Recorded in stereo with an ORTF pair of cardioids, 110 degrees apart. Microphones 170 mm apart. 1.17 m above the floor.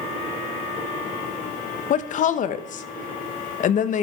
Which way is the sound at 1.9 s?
50° left.